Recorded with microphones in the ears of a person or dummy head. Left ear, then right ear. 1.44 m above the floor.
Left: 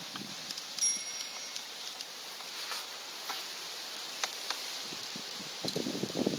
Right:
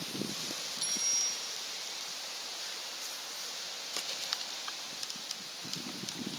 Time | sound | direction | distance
0.8 | a bicycle bell | 40° left (ahead or behind) | 4.5 m